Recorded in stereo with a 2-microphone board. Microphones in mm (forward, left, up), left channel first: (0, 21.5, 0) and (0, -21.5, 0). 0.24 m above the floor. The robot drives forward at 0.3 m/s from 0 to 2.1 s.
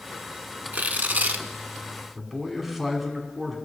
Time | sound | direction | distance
0.7 | tearing paper | 45° right (ahead or behind) | 0.6 m
2.1 | a man speaking | centre (ahead or behind) | 2.5 m